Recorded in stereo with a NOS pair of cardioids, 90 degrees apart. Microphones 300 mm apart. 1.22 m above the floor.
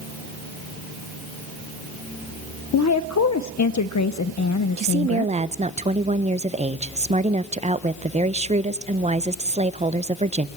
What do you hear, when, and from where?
2.7 s a woman speaking: 65° left, 0.5 m
4.8 s a woman speaking: 25° right, 0.8 m